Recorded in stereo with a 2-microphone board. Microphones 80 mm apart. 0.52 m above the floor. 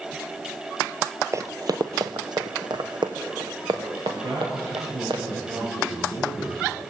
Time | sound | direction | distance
1.3 | running footsteps | 40° right (ahead or behind) | 0.7 m
4.2 | a man speaking | 80° right | 9.5 m